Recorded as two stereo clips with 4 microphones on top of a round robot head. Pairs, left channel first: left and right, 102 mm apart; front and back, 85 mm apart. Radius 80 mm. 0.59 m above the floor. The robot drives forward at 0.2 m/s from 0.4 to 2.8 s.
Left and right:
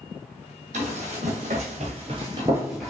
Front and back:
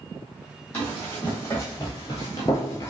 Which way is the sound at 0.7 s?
80° right.